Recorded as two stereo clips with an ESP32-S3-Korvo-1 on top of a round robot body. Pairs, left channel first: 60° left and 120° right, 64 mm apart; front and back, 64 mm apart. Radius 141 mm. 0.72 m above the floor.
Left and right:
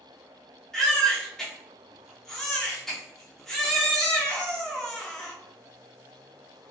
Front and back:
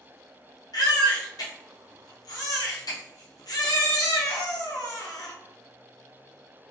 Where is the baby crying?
25° right, 0.5 m.